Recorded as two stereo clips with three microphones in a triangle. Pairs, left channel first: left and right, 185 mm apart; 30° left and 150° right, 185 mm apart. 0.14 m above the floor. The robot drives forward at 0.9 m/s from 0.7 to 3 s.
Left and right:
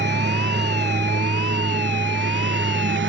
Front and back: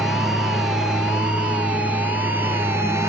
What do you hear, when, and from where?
0.0 s a lawn mower: 60° right; by 3.1 s 70° right